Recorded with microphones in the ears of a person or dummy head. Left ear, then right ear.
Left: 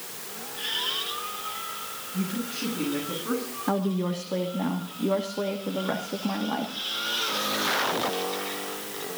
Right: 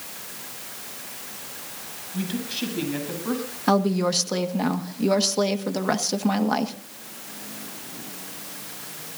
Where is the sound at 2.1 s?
45° right (ahead or behind), 7.5 m; by 3.4 s 35° right (ahead or behind), 8.5 m.